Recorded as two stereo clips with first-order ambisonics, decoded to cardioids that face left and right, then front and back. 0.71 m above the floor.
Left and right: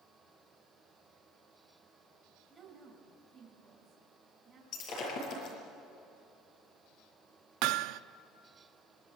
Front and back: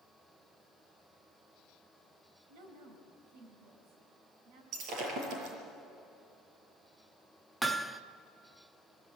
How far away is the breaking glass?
About 6.5 m.